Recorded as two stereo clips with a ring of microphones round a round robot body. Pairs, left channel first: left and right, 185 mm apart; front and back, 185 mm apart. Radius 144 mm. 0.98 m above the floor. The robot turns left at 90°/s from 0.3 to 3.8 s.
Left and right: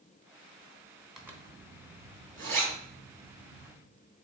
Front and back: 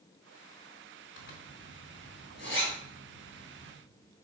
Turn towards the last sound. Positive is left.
turn(degrees=120)